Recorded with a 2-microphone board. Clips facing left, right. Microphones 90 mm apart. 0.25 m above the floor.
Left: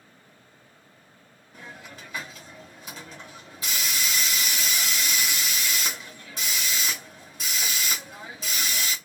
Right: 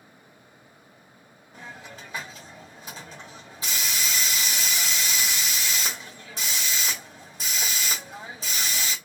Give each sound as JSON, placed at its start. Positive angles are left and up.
{"t": 1.5, "sound": "a hiss", "side_deg": -30, "distance_m": 1.5}